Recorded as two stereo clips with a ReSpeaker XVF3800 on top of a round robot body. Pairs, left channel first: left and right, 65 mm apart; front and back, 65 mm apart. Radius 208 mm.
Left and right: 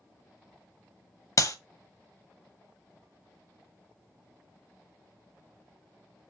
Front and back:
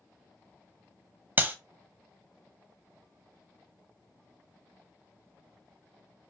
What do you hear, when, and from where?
1.4 s a clap: 125° left, 1.0 m